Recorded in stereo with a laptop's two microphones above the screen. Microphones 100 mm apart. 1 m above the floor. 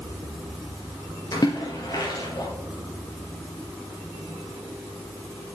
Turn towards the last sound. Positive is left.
turn(degrees=40)  # may be behind; listen again after turning